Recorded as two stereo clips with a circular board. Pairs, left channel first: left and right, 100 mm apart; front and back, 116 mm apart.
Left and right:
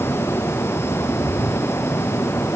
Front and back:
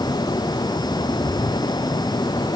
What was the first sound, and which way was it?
Only background noise.